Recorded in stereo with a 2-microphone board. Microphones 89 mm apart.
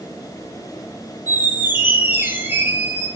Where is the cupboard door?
No cupboard door in this recording.